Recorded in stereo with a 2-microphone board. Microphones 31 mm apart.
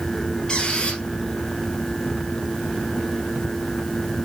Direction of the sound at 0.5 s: 25° left (ahead or behind).